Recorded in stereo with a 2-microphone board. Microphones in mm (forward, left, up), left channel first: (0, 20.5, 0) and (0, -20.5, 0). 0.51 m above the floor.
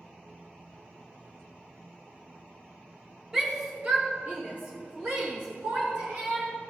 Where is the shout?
10° right (ahead or behind), 0.8 m; by 6.5 s 65° right (ahead or behind), 2.5 m.